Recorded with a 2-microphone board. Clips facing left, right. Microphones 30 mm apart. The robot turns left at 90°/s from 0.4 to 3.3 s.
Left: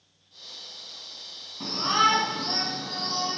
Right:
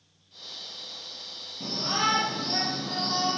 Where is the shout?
120° left, 4 m; by 3.4 s 30° right, 4 m.